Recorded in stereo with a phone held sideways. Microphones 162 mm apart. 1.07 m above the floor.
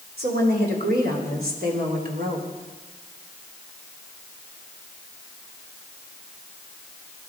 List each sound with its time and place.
0.2 s a woman speaking: 85° right, 3.5 m; by 2.5 s 70° right (ahead or behind), 3 m